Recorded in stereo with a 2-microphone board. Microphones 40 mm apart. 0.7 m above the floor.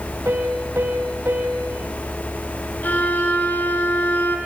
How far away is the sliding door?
I don't hear a sliding door.